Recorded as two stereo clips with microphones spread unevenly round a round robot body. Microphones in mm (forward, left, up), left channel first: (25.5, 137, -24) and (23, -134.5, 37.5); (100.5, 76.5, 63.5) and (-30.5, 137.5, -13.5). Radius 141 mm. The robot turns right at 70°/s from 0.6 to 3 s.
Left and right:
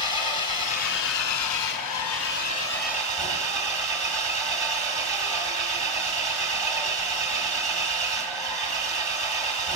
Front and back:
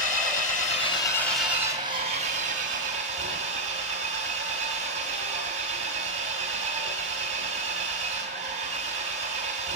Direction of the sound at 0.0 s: 20° left.